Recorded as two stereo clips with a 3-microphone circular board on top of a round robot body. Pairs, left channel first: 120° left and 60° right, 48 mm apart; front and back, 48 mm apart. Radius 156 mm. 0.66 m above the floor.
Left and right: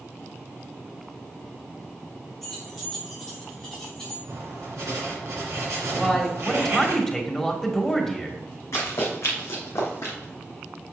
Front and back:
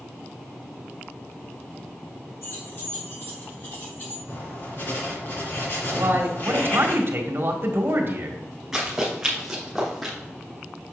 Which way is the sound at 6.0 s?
155° right.